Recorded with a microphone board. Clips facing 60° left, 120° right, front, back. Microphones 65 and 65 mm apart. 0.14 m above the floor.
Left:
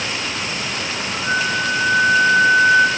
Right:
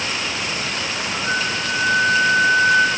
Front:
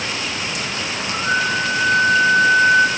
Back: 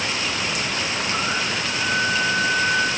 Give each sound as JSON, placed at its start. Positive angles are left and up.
{"t": 1.2, "sound": "a flute", "azimuth_deg": -15, "distance_m": 8.5}